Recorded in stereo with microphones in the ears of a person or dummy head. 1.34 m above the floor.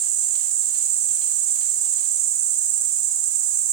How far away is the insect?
About 3 m.